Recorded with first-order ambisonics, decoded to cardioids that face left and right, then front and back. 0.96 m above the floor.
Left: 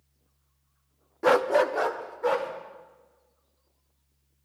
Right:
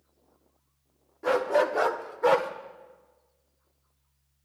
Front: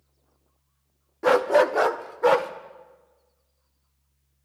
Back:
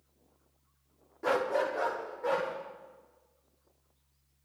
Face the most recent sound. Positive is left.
turn(degrees=-30)